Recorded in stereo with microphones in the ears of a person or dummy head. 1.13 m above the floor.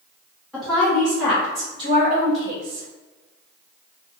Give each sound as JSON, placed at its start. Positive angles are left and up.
{"t": 0.5, "sound": "a woman speaking", "side_deg": 5, "distance_m": 1.4}